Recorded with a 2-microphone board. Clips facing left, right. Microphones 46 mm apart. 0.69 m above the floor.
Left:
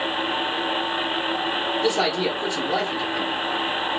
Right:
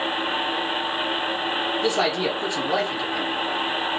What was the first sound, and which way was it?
A man speaking, 35° right (ahead or behind).